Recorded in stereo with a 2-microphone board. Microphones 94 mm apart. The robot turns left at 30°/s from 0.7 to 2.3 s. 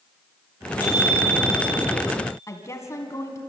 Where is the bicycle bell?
15° left, 9 m; by 1.9 s 15° right, 9 m.